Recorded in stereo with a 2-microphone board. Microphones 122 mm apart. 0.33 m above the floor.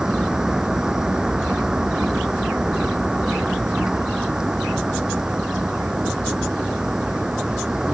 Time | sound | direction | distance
0.0 | a vehicle | 5° right (ahead or behind) | ?